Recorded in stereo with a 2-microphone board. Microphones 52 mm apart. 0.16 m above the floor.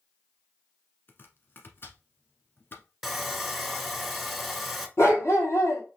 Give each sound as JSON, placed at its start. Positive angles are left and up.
{"t": 1.1, "sound": "chopping", "side_deg": 45, "distance_m": 1.0}
{"t": 3.0, "sound": "sawing", "side_deg": -5, "distance_m": 0.6}
{"t": 5.0, "sound": "a dog barking", "side_deg": 60, "distance_m": 1.5}